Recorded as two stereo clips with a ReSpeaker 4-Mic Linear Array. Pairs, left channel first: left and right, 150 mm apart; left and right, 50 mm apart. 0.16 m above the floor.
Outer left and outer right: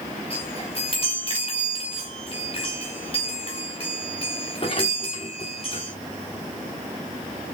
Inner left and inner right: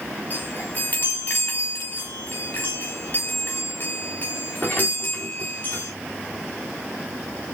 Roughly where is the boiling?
No boiling in this recording.